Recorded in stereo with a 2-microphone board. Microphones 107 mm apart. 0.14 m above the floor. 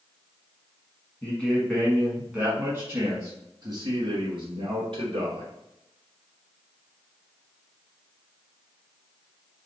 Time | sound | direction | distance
1.2 | a man speaking | 15° left (ahead or behind) | 1.4 m